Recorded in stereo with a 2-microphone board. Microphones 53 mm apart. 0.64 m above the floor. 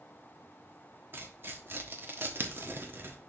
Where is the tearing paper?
45° right (ahead or behind), 1.0 m.